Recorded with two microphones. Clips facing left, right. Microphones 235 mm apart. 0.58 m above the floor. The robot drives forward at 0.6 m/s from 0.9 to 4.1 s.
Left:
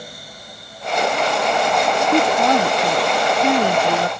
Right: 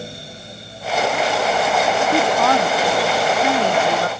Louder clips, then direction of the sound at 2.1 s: Left 3 dB; 15° left (ahead or behind).